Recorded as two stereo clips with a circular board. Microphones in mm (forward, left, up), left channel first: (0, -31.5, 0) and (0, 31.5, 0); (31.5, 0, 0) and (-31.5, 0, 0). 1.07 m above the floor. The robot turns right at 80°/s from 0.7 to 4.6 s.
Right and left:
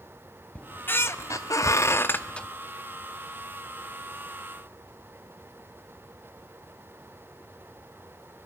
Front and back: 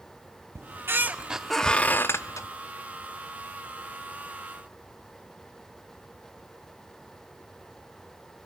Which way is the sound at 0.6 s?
155° right.